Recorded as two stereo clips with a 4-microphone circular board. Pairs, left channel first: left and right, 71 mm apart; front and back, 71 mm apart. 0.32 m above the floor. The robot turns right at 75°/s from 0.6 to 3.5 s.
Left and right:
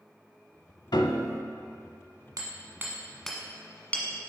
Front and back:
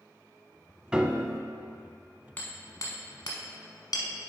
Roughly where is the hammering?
Ahead right.